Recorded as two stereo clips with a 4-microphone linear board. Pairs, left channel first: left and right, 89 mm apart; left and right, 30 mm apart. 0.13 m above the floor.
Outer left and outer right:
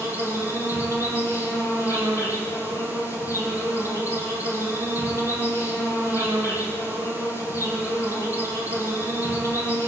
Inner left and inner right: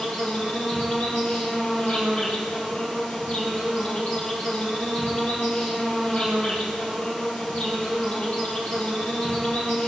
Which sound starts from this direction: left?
An insect, at 0.0 s.